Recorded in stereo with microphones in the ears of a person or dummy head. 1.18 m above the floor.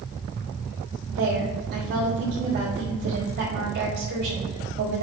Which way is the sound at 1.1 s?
55° right (ahead or behind).